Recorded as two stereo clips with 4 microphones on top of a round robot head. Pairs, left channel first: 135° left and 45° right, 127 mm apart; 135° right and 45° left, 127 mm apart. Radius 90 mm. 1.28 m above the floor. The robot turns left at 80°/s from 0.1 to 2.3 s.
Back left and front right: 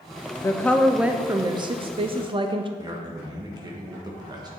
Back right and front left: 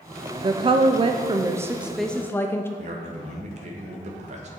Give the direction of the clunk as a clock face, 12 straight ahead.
No clunk in this recording.